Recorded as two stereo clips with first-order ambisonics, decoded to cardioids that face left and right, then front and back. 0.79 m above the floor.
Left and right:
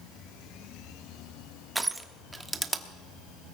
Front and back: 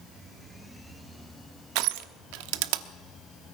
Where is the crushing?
175° right, 0.9 m.